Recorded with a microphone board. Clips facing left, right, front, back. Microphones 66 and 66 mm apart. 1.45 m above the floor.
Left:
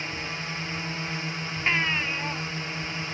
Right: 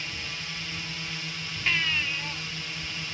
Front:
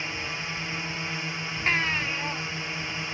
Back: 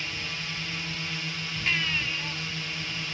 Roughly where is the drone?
Ahead left.